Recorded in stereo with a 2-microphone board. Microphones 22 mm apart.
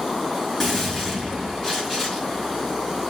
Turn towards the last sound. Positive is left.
turn(degrees=10)  # may be behind; listen again after turning